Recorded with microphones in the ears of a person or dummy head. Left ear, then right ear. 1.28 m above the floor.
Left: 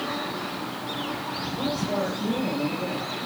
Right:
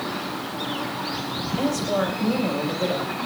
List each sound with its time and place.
1.6 s a woman speaking: 65° right (ahead or behind), 4 m